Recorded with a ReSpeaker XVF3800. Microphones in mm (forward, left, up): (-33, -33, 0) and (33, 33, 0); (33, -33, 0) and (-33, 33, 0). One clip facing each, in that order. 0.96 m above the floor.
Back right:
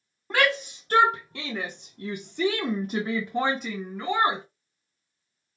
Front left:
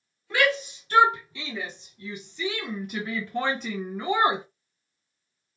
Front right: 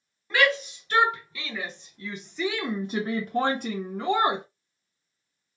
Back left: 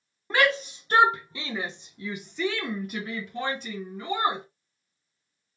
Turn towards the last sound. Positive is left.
turn(degrees=-30)